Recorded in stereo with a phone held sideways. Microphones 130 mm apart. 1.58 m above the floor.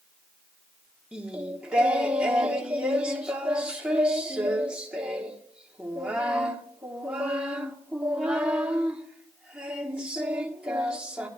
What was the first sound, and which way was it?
Singing, 10° right (ahead or behind).